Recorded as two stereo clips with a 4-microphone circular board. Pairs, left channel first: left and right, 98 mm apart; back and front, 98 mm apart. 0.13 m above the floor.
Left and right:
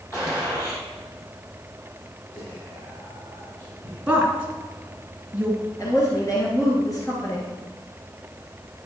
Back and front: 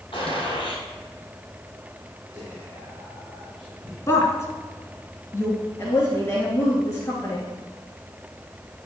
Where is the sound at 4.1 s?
155° right, 1.7 m.